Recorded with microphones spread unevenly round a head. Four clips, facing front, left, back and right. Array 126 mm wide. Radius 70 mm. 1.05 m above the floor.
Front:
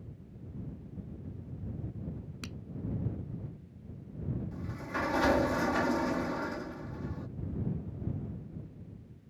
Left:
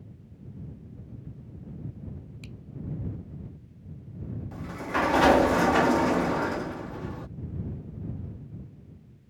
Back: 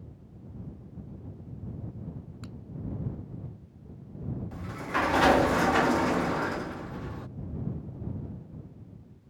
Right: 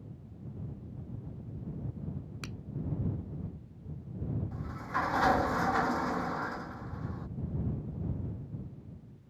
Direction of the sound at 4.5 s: 125° left.